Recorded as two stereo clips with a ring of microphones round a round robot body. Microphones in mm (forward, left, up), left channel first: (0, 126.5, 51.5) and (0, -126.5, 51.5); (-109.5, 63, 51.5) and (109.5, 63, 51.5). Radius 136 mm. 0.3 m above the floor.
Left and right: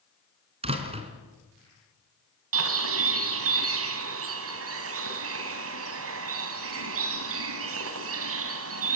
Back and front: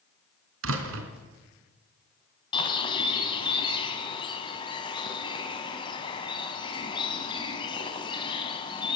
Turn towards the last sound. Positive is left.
turn(degrees=-110)